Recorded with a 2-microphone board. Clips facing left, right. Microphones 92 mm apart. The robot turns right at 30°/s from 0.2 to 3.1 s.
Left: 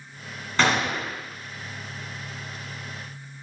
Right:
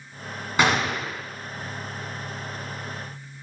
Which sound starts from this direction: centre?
A gunshot, at 0.6 s.